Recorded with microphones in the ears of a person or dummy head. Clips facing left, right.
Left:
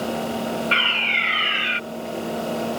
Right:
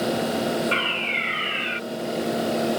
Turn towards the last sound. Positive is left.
turn(degrees=65)  # may be behind; listen again after turning